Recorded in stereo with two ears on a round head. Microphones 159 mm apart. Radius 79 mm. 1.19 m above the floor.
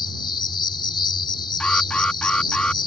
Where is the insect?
30° left (ahead or behind).